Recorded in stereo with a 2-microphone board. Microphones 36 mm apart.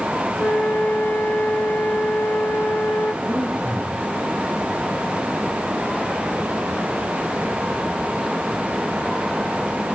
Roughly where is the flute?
Left.